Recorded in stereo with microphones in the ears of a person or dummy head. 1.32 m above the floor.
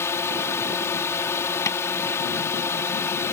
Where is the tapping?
15° left (ahead or behind).